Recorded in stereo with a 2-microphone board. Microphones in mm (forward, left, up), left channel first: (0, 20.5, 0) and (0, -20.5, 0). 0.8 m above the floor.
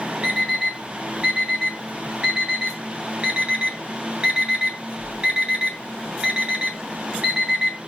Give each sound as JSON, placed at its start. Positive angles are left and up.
{"t": 0.2, "sound": "an alarm clock", "side_deg": -20, "distance_m": 3.5}